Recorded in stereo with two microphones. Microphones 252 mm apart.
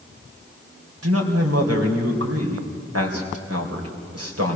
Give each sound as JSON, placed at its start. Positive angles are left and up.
{"t": 1.0, "sound": "a man speaking", "side_deg": -70, "distance_m": 3.5}